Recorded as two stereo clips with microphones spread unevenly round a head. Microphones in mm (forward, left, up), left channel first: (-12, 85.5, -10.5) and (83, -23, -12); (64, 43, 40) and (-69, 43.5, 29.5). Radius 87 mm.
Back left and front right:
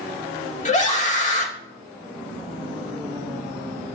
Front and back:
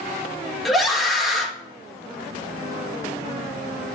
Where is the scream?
90° left, 2.5 m.